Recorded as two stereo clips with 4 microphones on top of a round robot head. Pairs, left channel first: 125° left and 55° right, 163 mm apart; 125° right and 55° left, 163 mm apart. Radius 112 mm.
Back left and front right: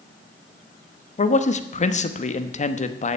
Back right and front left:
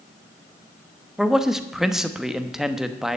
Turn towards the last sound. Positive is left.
turn(degrees=140)